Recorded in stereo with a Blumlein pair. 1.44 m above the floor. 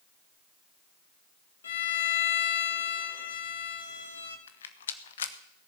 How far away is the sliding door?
No sliding door in this recording.